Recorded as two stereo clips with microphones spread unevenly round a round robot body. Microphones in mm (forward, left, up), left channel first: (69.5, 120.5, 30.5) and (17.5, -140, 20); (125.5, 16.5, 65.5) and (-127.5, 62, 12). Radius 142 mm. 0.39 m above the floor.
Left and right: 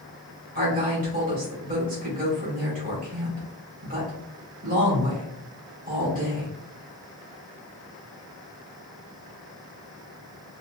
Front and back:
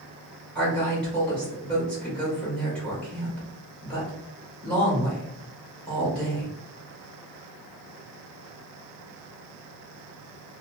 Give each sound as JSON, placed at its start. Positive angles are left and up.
{"t": 0.6, "sound": "a woman speaking", "azimuth_deg": -110, "distance_m": 1.5}